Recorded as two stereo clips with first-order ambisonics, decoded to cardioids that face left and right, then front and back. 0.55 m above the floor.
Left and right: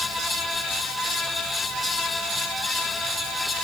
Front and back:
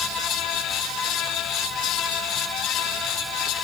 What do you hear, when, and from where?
Only background noise.